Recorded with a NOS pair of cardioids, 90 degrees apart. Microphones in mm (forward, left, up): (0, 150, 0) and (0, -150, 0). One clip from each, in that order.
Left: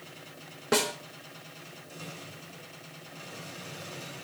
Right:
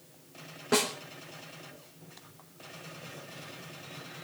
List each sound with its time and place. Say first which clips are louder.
0.7 s a snare drum: left 1 dB; 15° left, 4 m